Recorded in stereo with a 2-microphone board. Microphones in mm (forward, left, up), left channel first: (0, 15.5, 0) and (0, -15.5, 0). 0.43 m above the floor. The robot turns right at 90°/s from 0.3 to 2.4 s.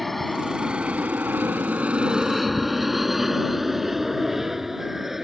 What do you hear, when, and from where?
0.0 s an aircraft: centre (ahead or behind); by 5.2 s 10° right (ahead or behind)